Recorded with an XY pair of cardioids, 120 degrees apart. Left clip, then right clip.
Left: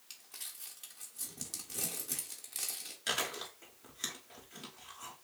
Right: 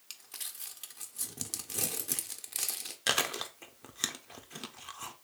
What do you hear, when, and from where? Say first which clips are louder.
0.1 s crumpling: right 4 dB; 35° right, 0.6 m
3.1 s chewing: right 5 dB; 50° right, 0.6 m